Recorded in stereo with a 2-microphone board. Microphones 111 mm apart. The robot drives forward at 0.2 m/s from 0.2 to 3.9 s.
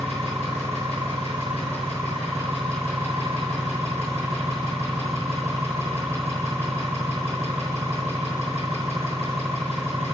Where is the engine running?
70° right (ahead or behind), 5 m; by 10.2 s 75° right (ahead or behind), 4.5 m.